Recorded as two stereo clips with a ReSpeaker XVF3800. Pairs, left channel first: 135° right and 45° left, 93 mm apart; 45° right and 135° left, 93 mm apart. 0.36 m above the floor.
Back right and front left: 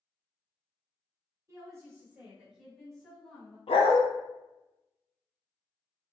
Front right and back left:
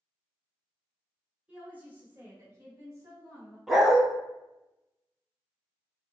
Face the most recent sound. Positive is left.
turn(degrees=-135)